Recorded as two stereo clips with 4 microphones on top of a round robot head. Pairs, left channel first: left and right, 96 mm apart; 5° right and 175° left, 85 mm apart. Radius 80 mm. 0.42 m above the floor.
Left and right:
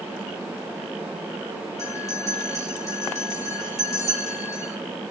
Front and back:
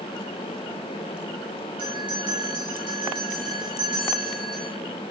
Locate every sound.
1.8 s a bell: 150° left, 3.5 m